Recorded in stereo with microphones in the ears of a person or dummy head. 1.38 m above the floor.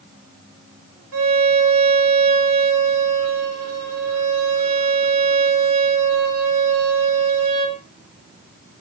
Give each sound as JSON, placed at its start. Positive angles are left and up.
{"t": 1.1, "sound": "a violin", "side_deg": -80, "distance_m": 4.5}